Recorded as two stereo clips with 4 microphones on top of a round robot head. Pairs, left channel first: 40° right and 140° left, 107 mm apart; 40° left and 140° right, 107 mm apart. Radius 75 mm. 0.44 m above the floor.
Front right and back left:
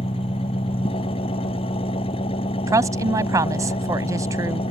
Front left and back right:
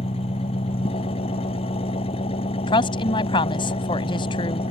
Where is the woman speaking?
80° left.